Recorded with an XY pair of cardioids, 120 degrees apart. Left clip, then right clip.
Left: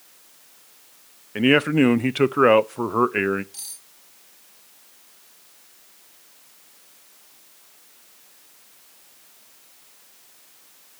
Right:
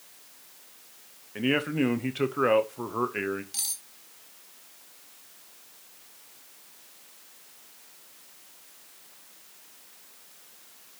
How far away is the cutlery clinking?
About 2 m.